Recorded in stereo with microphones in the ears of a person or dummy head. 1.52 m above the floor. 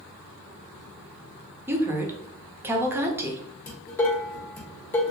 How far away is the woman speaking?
About 0.8 m.